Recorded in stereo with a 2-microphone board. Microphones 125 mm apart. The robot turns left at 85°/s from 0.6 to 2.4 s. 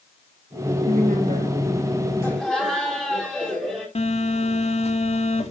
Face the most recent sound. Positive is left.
turn(degrees=50)  # may be behind; listen again after turning